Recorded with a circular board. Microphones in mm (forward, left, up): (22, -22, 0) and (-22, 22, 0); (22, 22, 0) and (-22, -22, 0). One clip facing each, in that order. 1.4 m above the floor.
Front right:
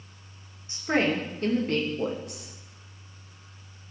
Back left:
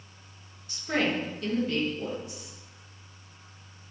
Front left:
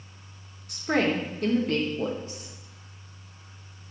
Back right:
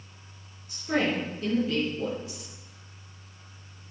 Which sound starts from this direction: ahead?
A woman speaking, at 0.7 s.